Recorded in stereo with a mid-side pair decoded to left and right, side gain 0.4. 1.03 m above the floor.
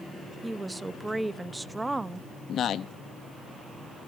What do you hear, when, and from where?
0.4 s a woman speaking: 20° right, 0.8 m
2.5 s a man speaking: 70° left, 0.9 m